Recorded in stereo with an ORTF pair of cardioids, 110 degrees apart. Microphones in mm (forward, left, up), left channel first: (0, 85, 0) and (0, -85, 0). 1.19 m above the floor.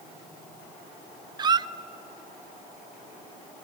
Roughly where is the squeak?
Ahead right.